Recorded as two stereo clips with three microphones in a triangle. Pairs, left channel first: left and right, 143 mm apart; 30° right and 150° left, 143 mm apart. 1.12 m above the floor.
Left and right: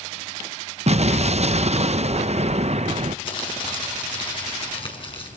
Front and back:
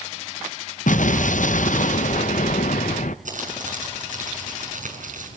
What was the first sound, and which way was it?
An explosion, 50° right.